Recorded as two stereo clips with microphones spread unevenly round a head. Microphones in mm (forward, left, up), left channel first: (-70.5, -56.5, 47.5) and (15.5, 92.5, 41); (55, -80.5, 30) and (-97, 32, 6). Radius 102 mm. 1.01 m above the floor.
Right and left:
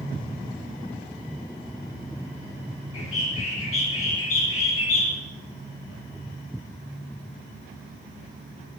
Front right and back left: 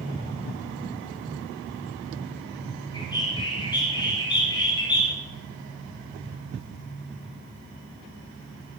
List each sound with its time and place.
2.9 s a bird: 105° right, 7.5 m